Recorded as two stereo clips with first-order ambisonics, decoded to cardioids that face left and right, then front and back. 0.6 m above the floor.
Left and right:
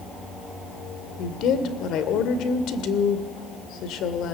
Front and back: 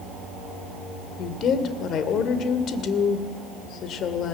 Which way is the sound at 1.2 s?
50° left.